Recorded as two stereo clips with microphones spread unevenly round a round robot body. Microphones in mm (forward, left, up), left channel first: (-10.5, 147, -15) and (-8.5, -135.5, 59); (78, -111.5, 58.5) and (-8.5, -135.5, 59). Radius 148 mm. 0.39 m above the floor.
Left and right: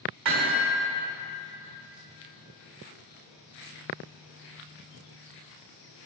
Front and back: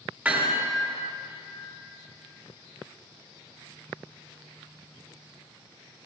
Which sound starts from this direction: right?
Hammering, at 0.2 s.